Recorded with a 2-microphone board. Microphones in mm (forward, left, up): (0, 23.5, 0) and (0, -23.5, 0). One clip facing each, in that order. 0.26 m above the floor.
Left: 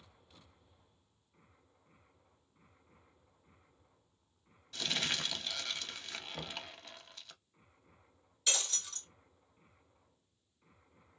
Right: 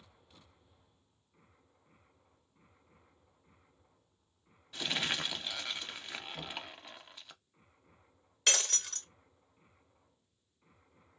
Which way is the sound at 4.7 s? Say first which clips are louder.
Right 2 dB; 15° right (ahead or behind).